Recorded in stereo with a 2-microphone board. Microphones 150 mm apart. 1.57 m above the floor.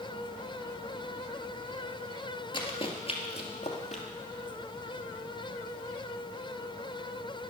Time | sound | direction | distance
2.5 | running footsteps | 35° left (ahead or behind) | 1.8 m